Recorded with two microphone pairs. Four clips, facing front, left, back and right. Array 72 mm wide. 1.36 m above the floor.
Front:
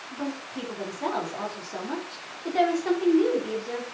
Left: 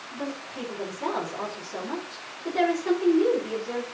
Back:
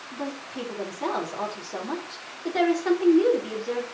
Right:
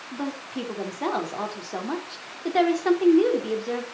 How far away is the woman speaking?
About 3.5 m.